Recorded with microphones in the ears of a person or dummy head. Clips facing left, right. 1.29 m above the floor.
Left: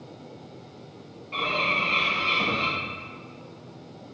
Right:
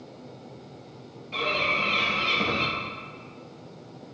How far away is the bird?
About 2 m.